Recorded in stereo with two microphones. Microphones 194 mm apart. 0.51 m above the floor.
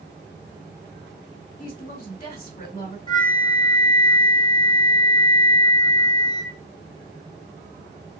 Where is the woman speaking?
45° left (ahead or behind), 1.9 m.